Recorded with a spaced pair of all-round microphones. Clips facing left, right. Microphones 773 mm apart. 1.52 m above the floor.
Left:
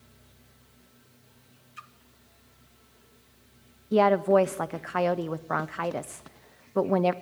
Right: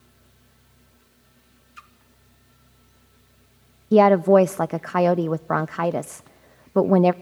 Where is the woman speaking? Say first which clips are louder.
Right 7 dB; 70° right (ahead or behind), 0.6 m.